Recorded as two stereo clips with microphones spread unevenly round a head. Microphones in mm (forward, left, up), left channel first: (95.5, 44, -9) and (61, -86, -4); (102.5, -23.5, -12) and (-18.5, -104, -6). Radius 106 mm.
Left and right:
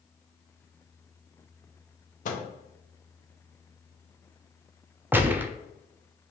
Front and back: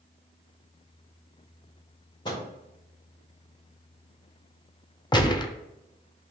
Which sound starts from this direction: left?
A microwave, at 2.2 s.